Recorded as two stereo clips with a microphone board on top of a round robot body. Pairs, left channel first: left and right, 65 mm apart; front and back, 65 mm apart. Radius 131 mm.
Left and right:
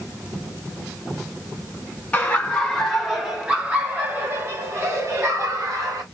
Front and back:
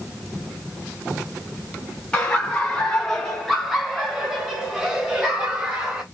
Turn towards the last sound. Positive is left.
turn(degrees=-105)